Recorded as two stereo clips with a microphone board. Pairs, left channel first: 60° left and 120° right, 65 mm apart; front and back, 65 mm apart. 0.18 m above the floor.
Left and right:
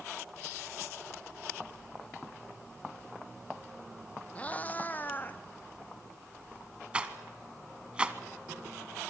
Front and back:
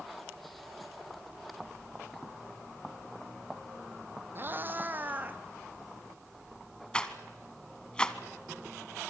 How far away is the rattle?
About 1.3 m.